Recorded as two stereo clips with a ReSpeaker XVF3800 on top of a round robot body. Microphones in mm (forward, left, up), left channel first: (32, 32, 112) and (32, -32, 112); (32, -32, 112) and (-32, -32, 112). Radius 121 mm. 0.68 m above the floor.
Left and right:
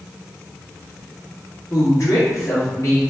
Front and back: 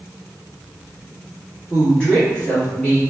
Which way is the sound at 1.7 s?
70° left.